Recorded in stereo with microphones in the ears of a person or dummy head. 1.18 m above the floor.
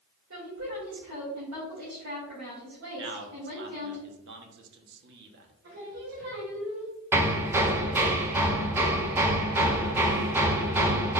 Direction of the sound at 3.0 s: 60° right (ahead or behind).